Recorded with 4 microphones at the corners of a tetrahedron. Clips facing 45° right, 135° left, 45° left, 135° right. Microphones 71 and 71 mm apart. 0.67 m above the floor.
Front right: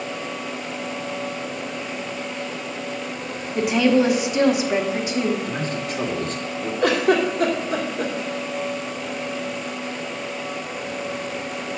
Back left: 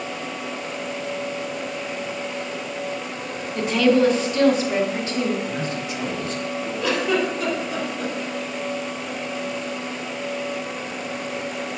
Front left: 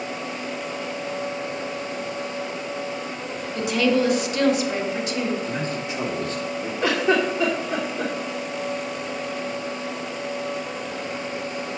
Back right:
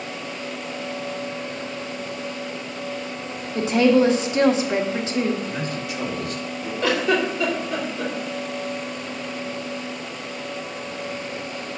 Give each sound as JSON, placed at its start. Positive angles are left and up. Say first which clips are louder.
{"t": 3.5, "sound": "a woman speaking", "louder": "even, back right 4 dB", "azimuth_deg": -105, "distance_m": 1.3}
{"t": 5.5, "sound": "a man speaking", "louder": "front right 1 dB, front left 1 dB", "azimuth_deg": -10, "distance_m": 2.5}
{"t": 6.8, "sound": "a giggle", "louder": "front right 4 dB, even", "azimuth_deg": -20, "distance_m": 2.0}